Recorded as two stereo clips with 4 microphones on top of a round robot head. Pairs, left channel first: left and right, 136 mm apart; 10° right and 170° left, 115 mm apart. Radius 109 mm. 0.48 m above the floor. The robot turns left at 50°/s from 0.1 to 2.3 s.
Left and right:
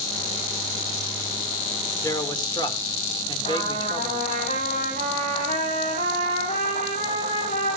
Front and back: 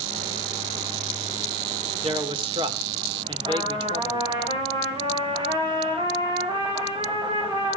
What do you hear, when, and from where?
2.0 s a man speaking: 155° left, 2 m; by 4.2 s 140° left, 2 m
3.4 s a trumpet: 120° left, 9 m